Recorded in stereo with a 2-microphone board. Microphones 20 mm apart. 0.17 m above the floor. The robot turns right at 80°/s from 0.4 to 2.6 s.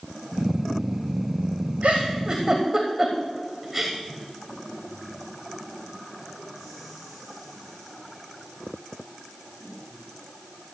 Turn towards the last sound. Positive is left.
turn(degrees=-10)  # may be behind; listen again after turning